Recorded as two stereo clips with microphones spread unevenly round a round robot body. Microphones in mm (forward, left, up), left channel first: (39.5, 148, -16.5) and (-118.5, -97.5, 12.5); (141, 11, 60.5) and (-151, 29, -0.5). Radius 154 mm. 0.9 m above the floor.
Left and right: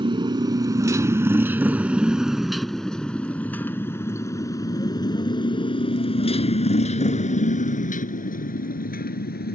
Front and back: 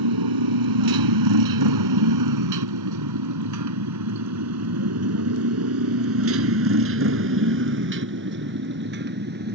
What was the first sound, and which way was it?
A motorcycle, 165° left.